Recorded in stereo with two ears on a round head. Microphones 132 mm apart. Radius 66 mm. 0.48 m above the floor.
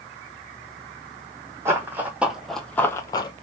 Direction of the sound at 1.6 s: 15° right (ahead or behind).